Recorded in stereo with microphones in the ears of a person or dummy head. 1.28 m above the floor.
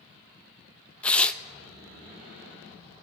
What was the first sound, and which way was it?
Tearing paper, 5° left (ahead or behind).